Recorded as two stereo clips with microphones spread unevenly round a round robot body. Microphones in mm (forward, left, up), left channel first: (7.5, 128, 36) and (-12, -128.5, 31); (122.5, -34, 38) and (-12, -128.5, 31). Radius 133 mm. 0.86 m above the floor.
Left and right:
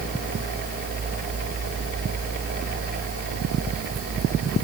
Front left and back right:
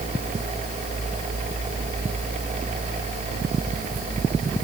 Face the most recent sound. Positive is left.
No sound to turn to.